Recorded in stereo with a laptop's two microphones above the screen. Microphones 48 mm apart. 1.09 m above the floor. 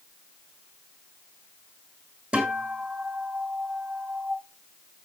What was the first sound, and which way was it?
A guitar, 15° right (ahead or behind).